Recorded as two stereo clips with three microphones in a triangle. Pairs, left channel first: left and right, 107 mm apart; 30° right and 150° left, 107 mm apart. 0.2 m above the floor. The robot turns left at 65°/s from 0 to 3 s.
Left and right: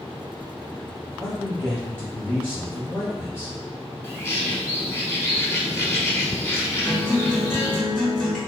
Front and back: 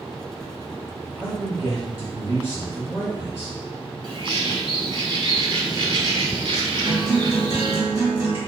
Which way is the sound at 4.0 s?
145° left.